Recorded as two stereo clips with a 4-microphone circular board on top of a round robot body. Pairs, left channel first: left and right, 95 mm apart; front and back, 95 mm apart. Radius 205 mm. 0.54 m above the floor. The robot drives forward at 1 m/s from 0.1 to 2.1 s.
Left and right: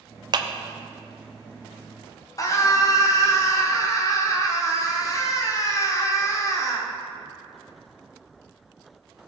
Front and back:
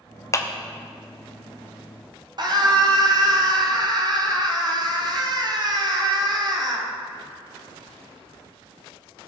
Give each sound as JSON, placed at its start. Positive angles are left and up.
{"t": 0.3, "sound": "a clap", "azimuth_deg": -55, "distance_m": 1.0}
{"t": 2.4, "sound": "a scream", "azimuth_deg": 140, "distance_m": 2.5}